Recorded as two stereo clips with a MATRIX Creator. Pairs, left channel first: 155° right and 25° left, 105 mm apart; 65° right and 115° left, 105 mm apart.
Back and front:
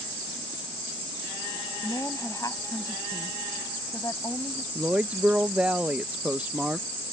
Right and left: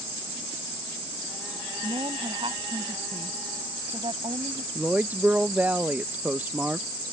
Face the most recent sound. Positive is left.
turn(degrees=75)